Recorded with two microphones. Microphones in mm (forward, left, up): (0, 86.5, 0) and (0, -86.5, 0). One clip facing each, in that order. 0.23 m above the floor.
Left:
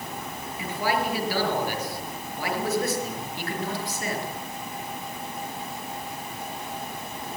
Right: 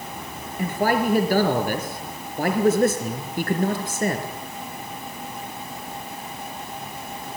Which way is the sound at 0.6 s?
50° right (ahead or behind).